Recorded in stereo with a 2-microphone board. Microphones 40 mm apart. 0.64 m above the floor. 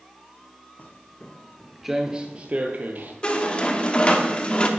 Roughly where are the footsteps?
Left.